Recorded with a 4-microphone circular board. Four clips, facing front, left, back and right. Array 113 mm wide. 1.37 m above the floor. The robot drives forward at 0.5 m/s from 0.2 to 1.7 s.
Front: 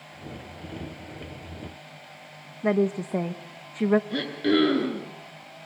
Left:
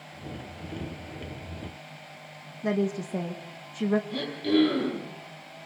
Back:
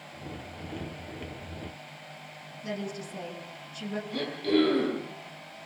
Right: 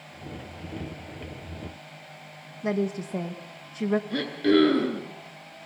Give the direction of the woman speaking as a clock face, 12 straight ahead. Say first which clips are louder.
Even, front 13 dB; 12 o'clock.